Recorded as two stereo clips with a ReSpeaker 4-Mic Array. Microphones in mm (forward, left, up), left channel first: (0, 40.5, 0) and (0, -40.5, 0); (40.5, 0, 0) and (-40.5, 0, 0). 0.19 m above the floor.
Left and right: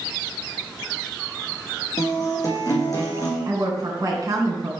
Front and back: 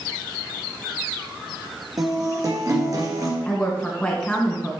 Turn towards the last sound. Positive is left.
turn(degrees=-75)